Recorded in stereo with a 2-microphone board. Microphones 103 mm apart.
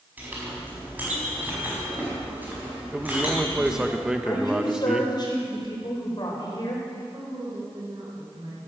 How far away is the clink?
About 5 m.